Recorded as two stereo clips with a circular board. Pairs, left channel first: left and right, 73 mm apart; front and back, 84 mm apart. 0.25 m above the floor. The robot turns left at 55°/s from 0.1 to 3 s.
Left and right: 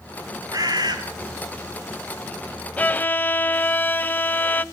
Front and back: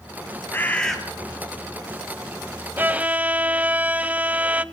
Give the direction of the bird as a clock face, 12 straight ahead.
2 o'clock.